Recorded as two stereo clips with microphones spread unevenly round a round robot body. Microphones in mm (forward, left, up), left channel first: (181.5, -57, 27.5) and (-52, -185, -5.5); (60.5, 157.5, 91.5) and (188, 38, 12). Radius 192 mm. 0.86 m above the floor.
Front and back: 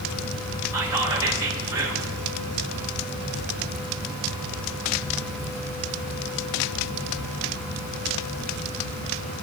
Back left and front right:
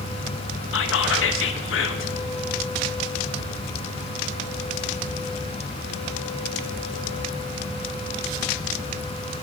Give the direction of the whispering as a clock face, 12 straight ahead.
8 o'clock.